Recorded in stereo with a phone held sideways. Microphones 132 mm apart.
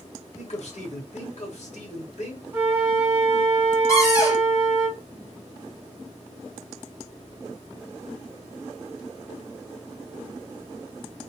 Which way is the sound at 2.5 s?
20° right (ahead or behind).